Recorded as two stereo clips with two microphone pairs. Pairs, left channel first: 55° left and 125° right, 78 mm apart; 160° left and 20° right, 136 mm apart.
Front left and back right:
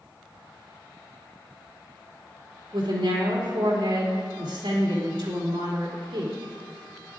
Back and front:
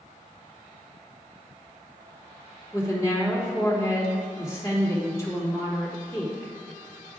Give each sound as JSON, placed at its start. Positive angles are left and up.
{"t": 2.7, "sound": "a woman speaking", "azimuth_deg": -135, "distance_m": 3.0}